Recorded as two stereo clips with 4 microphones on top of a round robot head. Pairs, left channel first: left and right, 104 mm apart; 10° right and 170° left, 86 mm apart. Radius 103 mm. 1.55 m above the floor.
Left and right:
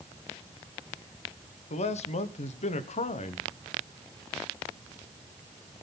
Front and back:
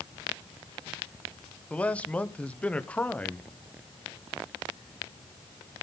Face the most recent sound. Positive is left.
turn(degrees=70)